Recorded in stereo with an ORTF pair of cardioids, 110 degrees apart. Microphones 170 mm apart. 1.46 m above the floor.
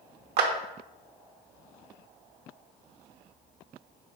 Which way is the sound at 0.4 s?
70° right.